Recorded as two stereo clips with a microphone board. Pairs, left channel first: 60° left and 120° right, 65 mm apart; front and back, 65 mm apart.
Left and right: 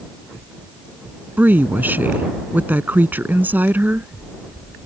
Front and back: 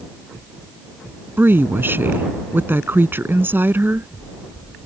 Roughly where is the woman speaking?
Behind right.